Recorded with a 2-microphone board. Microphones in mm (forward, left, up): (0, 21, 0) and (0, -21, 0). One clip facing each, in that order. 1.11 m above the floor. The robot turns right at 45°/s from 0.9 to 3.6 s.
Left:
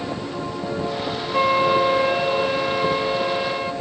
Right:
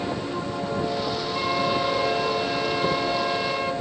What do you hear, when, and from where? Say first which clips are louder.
1.3 s a flute: left 8 dB; 75° left, 0.8 m; by 3.7 s straight behind, 0.8 m